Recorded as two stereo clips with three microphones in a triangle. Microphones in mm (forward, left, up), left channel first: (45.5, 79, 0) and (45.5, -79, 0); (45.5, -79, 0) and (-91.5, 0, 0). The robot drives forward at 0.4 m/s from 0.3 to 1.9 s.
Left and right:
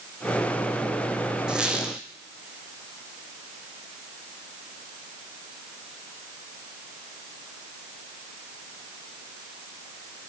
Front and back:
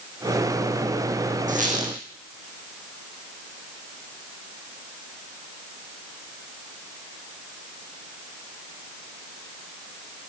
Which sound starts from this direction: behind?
A squeak, at 1.5 s.